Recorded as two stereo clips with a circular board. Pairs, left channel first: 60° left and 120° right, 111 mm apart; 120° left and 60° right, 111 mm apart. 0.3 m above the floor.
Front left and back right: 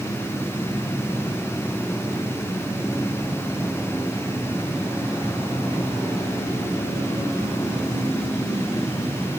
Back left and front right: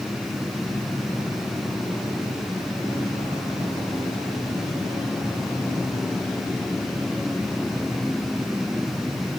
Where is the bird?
No bird in this recording.